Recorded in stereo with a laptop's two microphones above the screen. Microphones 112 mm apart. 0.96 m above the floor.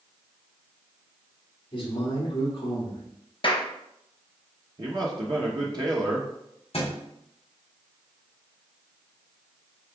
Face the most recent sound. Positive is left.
turn(degrees=60)  # may be behind; listen again after turning